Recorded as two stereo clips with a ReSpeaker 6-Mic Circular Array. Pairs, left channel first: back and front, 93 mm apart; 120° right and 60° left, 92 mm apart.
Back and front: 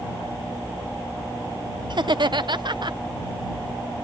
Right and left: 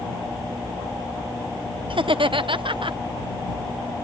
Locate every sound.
1.9 s laughter: 35° left